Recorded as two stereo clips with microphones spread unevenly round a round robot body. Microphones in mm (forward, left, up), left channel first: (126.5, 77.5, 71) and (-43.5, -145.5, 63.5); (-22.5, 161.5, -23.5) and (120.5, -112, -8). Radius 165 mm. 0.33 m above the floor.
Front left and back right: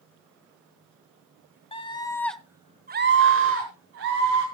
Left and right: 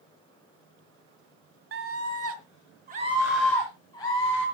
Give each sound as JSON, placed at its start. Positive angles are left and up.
{"t": 1.7, "sound": "a scream", "azimuth_deg": -20, "distance_m": 1.9}